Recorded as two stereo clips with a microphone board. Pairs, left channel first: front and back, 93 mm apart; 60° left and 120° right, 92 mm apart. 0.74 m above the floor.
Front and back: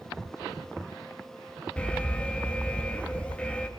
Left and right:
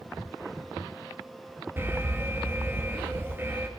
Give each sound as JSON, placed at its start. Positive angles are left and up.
{"t": 1.8, "sound": "an alarm", "azimuth_deg": -70, "distance_m": 1.6}